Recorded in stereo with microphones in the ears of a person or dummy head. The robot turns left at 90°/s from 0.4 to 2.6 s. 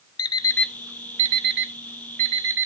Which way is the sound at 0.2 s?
25° left (ahead or behind).